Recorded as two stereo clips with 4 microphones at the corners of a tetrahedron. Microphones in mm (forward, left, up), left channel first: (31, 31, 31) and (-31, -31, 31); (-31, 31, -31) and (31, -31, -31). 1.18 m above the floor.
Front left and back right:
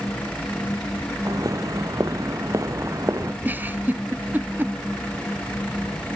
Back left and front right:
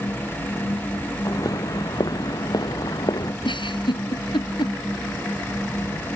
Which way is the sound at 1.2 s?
Straight behind.